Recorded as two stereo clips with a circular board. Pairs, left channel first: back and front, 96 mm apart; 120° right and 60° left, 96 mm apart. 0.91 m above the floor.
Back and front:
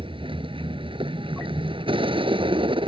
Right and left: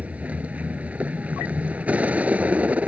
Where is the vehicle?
15° right.